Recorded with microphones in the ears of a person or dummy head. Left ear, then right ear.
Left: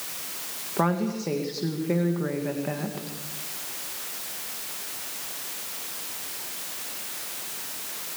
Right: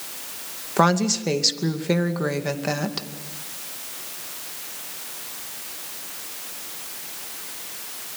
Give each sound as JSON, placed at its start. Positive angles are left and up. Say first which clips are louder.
{"t": 0.8, "sound": "a woman speaking", "louder": "right 7 dB", "side_deg": -80, "distance_m": 2.0}